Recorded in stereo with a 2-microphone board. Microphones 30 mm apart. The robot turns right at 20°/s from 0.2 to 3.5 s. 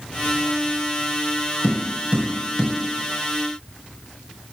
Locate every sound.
1.6 s tapping: 50° right (ahead or behind), 1.3 m; by 2.7 s 30° right (ahead or behind), 1.3 m